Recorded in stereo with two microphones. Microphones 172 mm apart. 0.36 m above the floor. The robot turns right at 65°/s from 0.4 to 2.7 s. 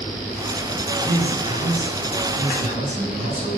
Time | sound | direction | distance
1.1 | a man speaking | 150° right | 3.5 m